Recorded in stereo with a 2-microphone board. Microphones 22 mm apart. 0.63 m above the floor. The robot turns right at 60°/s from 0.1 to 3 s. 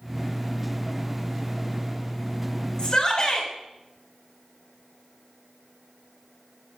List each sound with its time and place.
2.8 s a shout: 40° left (ahead or behind), 3.5 m; by 3.5 s 30° left (ahead or behind), 3.5 m